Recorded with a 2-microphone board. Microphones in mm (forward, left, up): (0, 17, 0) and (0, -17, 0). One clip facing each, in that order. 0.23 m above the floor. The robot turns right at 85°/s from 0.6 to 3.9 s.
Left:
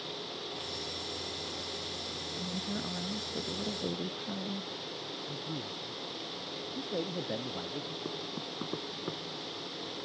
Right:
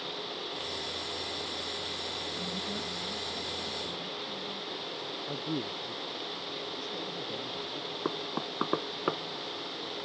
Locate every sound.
2.4 s a woman speaking: 25° right; by 4.7 s 105° left
5.3 s a man speaking: 75° right (ahead or behind)
6.8 s a man speaking: 40° left (ahead or behind)
8.1 s knocking: 60° right (ahead or behind)